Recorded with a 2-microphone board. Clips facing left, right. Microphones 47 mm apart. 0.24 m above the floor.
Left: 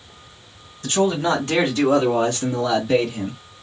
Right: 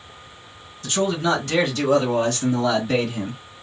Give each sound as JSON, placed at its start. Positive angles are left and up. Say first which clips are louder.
{"t": 0.8, "sound": "a man speaking", "louder": "left 2 dB", "side_deg": 40, "distance_m": 1.9}